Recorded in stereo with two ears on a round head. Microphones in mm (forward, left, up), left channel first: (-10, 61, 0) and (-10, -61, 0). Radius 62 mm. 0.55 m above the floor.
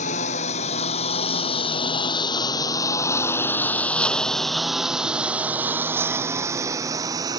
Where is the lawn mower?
60° left (ahead or behind); by 7.4 s 30° right (ahead or behind).